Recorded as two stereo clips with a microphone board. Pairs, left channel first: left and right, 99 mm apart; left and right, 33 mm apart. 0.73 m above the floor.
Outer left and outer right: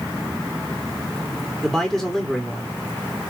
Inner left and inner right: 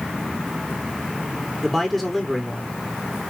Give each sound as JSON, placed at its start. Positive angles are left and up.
{"t": 1.6, "sound": "a man speaking", "side_deg": 0, "distance_m": 1.5}